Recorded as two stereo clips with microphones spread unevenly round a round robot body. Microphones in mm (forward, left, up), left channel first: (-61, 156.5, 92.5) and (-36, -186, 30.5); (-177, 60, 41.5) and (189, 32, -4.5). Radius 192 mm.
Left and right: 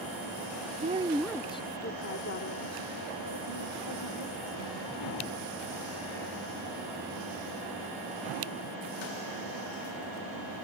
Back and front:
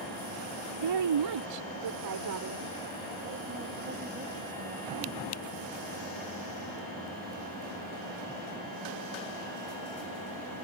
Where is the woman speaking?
20° right; by 5.3 s 70° left.